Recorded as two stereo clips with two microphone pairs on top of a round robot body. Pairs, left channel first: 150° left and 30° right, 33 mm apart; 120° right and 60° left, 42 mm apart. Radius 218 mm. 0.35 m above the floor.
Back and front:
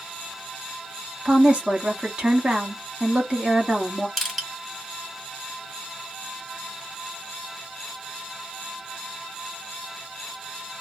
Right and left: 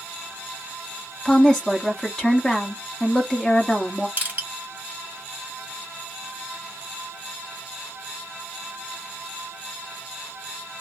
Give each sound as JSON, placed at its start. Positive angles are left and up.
{"t": 1.2, "sound": "a woman speaking", "azimuth_deg": -45, "distance_m": 1.5}
{"t": 4.2, "sound": "crushing", "azimuth_deg": 60, "distance_m": 1.7}